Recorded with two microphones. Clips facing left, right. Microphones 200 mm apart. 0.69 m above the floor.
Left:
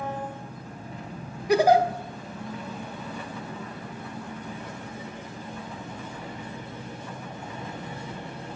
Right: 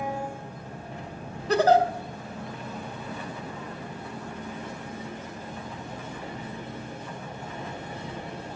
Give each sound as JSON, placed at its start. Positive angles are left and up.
{"t": 0.0, "sound": "an engine running", "side_deg": -75, "distance_m": 2.5}
{"t": 1.5, "sound": "a giggle", "side_deg": 10, "distance_m": 0.7}